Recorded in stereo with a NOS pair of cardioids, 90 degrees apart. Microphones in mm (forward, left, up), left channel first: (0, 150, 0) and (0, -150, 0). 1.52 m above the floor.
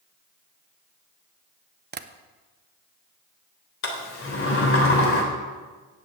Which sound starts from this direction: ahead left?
A sliding door, at 3.8 s.